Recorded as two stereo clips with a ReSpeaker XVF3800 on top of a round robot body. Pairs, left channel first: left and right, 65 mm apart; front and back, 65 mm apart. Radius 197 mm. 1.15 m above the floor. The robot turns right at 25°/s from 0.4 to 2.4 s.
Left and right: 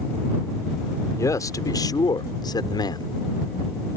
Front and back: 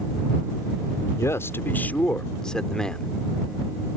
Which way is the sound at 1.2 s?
50° left.